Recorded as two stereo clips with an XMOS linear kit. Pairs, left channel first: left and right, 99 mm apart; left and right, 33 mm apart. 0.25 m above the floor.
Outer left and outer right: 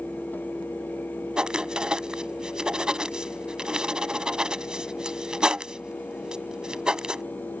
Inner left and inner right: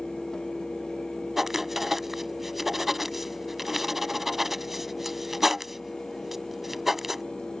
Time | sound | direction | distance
1.4 | writing | 10° right (ahead or behind) | ?